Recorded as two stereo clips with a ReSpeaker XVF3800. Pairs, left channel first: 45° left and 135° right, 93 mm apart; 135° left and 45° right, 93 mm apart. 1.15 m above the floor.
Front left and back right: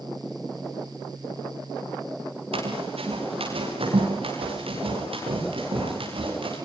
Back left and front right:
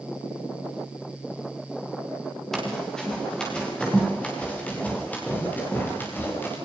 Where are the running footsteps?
140° right, 9 m; by 6.6 s 160° right, 12 m.